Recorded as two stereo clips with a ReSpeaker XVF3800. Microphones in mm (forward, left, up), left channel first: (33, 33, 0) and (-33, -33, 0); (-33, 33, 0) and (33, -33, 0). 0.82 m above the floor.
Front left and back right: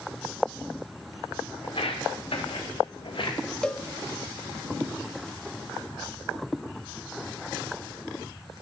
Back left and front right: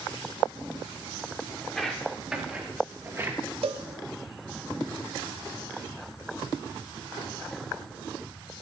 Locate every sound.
1.6 s footsteps: 50° left, 3 m; by 3.4 s 10° left, 3.5 m
3.6 s a cowbell: 35° right, 0.6 m